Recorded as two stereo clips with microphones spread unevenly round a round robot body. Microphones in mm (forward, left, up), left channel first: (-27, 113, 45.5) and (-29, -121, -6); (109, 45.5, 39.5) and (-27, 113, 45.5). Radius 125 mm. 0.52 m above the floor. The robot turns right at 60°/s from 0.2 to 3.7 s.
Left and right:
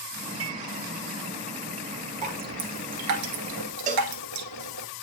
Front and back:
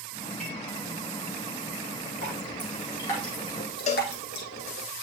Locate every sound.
0.4 s dishes clattering: 110° right, 1.6 m; by 0.6 s 95° right, 1.6 m
2.2 s dripping: 155° right, 1.3 m; by 4.9 s 70° right, 1.3 m
3.9 s a cowbell: 50° right, 0.8 m